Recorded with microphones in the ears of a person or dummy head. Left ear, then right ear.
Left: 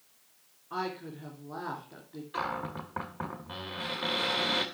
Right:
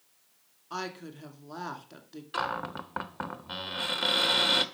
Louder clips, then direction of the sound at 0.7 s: Left 2 dB; 90° right.